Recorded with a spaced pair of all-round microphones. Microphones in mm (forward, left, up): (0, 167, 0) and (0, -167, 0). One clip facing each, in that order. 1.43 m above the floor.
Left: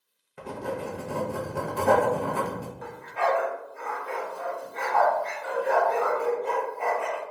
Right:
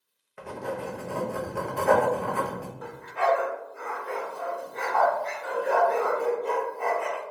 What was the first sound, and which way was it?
Writing, 45° left (ahead or behind).